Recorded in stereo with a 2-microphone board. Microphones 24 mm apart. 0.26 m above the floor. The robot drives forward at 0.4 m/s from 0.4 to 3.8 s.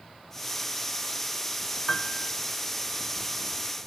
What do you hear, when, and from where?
1.9 s a piano: 40° left (ahead or behind), 0.6 m; by 2.3 s 55° left (ahead or behind), 0.5 m